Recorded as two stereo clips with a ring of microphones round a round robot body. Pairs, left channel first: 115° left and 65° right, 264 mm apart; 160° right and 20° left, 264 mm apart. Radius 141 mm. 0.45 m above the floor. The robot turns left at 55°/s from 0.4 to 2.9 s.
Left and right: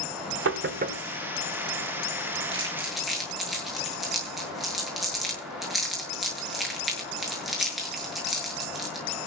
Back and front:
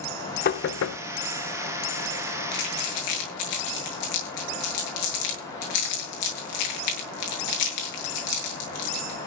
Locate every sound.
0.5 s knocking: 105° right, 1.4 m; by 1.0 s 135° right, 1.4 m
2.5 s crumpling: 135° right, 7.5 m; by 9.3 s 155° right, 7.5 m